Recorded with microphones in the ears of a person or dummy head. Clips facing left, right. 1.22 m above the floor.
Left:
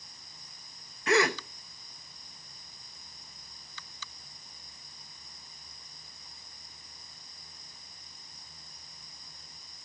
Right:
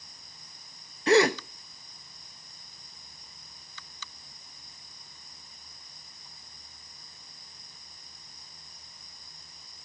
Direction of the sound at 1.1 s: 25° right (ahead or behind).